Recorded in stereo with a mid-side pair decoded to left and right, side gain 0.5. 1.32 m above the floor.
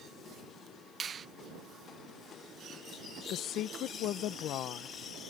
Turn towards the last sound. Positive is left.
turn(degrees=70)